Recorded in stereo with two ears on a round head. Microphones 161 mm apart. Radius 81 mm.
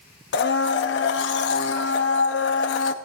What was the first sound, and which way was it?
A blender, 65° left (ahead or behind).